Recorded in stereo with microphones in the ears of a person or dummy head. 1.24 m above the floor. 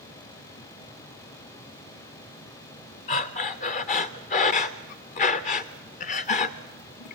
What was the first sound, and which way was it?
Breathing, 40° left (ahead or behind).